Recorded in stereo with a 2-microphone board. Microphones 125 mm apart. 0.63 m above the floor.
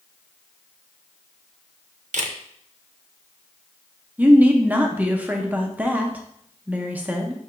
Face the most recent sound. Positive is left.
turn(degrees=-10)  # may be behind; listen again after turning